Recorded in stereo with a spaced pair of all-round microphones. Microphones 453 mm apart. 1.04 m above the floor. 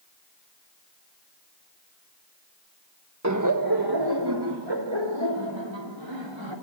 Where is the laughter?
35° right (ahead or behind), 1.4 m; by 6.5 s 75° right (ahead or behind), 4 m.